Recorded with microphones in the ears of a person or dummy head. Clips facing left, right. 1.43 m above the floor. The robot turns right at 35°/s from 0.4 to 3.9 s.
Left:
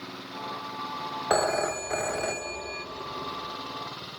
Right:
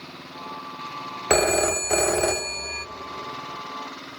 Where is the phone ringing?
145° right, 0.6 m; by 2.9 s 90° right, 0.6 m.